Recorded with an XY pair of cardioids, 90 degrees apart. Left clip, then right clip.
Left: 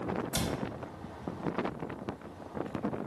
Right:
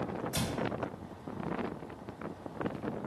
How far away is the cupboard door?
About 1.0 m.